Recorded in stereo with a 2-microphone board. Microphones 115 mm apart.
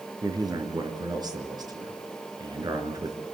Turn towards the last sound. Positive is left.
turn(degrees=-35)  # may be behind; listen again after turning